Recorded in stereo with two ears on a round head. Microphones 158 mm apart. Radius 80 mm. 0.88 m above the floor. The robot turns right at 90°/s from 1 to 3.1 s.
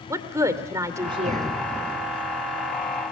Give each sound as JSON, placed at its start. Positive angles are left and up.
{"t": 0.1, "sound": "a woman speaking", "azimuth_deg": -160, "distance_m": 2.5}